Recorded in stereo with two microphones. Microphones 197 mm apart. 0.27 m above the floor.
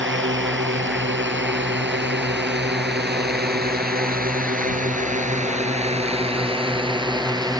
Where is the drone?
75° right (ahead or behind); by 7.6 s 20° right (ahead or behind).